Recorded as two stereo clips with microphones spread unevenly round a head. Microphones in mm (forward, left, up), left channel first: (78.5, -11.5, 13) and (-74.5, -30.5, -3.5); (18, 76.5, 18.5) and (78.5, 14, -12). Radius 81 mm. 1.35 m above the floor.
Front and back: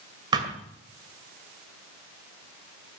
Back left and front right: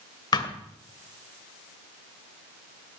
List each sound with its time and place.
0.3 s a thud: 120° left, 2 m